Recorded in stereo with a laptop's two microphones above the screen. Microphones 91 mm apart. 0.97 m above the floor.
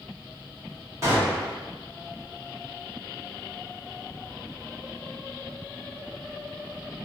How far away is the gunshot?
About 1.1 m.